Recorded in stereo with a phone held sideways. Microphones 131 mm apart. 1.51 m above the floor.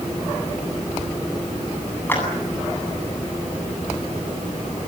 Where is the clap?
15° left (ahead or behind), 8.5 m.